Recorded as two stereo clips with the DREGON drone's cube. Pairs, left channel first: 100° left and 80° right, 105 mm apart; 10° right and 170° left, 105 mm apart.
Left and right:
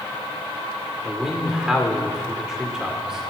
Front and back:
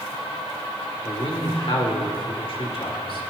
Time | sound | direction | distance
1.1 | a man speaking | 5° left | 2.5 m